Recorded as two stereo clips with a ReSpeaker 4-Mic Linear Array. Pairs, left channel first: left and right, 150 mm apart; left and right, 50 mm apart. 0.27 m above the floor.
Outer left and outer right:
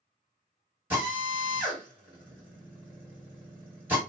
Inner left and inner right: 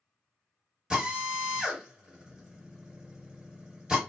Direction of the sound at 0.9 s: 15° right (ahead or behind).